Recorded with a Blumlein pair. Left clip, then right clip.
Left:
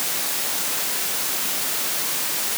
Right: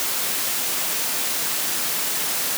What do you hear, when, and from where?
Only background noise.